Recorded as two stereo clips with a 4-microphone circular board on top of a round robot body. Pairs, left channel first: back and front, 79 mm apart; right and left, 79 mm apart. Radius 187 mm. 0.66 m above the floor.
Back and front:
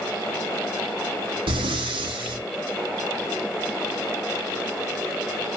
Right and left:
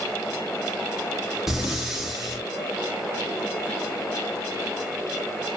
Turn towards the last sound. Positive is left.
turn(degrees=5)